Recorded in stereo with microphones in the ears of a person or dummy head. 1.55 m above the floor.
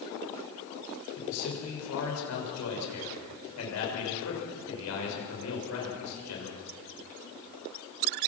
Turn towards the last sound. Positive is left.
turn(degrees=85)